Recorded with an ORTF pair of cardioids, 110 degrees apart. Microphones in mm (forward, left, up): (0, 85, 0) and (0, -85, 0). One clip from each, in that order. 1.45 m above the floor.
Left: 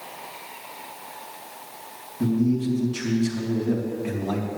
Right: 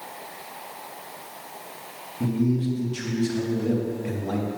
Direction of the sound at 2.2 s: Straight ahead.